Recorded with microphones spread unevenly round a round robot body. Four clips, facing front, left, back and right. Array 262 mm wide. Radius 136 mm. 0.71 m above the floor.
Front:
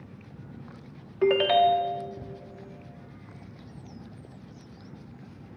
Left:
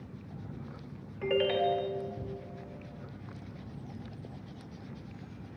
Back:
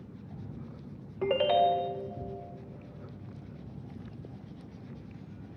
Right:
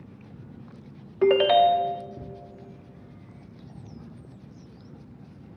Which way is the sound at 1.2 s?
65° right.